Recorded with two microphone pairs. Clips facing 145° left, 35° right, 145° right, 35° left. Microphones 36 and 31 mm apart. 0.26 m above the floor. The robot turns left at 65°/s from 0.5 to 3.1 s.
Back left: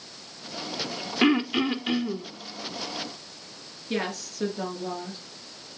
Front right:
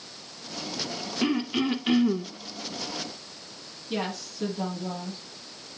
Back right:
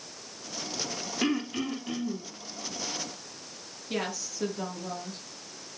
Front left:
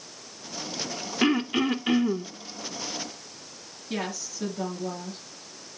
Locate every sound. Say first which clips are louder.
1.2 s throat clearing: back left 4 dB, front left 6 dB; 100° left, 0.7 m; by 2.3 s 30° left, 0.7 m
3.9 s a woman speaking: back left 1 dB, front left 1 dB; 130° left, 5 m